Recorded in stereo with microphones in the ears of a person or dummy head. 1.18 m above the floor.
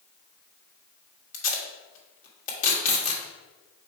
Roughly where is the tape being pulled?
Left.